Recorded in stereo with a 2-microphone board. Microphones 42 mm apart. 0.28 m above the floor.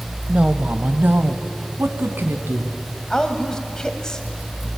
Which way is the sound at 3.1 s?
15° left (ahead or behind).